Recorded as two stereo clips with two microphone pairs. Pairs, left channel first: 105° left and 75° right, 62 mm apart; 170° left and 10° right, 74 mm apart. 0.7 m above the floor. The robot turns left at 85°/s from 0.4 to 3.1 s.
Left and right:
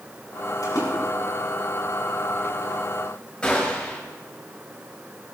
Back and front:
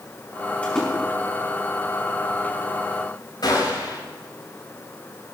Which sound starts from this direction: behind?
A gunshot, at 3.4 s.